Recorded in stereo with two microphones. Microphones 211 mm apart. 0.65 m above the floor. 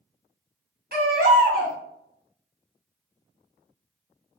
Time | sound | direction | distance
0.9 | a baby crying | 50° right (ahead or behind) | 0.9 m